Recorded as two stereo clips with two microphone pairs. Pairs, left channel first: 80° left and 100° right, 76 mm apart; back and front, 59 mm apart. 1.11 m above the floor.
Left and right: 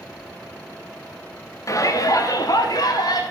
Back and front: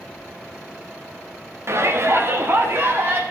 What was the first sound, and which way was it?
A shout, 35° left.